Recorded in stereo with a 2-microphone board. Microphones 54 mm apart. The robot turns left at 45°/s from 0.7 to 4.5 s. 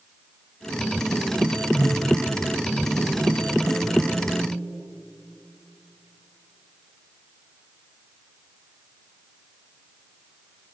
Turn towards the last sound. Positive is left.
turn(degrees=-80)